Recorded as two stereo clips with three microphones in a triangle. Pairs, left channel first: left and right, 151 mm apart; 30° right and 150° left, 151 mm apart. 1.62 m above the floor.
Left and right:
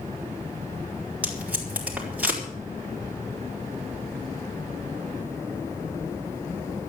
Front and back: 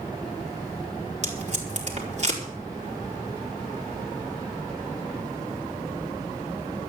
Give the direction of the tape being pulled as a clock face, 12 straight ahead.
6 o'clock.